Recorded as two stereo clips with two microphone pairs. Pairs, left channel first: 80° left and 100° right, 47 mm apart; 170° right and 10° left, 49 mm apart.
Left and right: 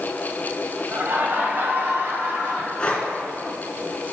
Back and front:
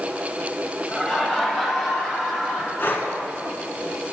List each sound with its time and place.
0.9 s laughter: 90° right, 1.5 m; by 2.7 s 85° right, 2.5 m
2.8 s breathing: 145° left, 1.3 m